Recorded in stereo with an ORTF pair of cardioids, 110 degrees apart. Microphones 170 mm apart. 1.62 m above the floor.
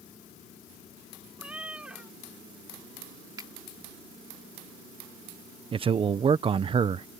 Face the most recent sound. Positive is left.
turn(degrees=-35)